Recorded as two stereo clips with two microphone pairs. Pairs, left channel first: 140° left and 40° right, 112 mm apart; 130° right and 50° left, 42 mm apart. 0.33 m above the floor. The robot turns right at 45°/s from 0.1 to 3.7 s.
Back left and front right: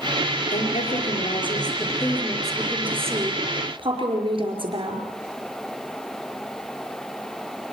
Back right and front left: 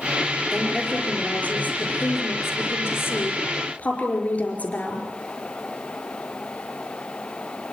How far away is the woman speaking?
About 5 m.